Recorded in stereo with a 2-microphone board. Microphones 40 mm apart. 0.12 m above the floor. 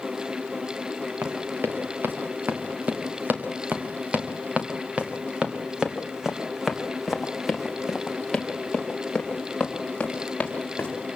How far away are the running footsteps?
About 3.5 m.